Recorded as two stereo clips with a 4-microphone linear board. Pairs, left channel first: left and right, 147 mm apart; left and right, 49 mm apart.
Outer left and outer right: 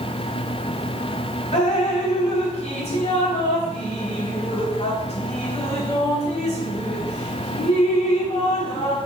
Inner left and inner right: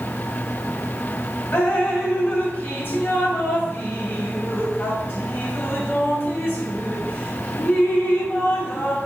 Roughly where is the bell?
No bell in this recording.